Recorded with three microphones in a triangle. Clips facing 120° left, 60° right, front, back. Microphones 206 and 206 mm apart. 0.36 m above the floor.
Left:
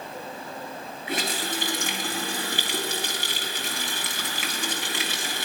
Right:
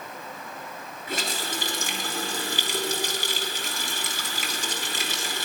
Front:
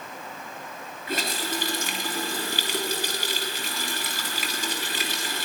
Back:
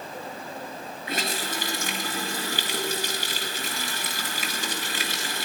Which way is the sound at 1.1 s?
145° left.